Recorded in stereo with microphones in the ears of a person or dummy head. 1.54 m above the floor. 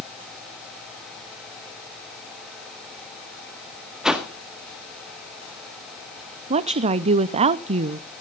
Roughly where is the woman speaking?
Right.